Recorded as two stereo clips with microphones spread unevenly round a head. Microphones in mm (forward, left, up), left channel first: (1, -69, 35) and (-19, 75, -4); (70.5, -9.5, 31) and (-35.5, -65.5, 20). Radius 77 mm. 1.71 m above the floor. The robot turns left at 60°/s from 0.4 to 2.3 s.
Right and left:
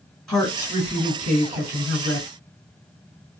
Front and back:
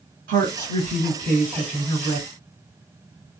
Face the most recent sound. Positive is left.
turn(degrees=80)